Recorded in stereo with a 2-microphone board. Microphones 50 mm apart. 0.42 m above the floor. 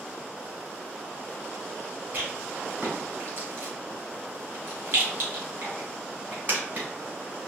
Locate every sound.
2.1 s a rattle: 40° right (ahead or behind), 2 m